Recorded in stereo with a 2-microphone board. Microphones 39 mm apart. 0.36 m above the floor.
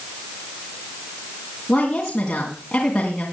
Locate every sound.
1.7 s a woman speaking: 20° left (ahead or behind), 3 m